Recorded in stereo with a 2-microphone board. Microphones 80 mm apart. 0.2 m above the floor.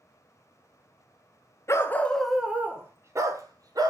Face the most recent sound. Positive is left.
turn(degrees=-55)  # may be behind; listen again after turning